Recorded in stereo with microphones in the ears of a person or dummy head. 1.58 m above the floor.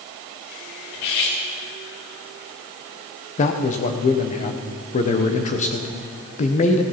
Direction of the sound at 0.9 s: 60° left (ahead or behind).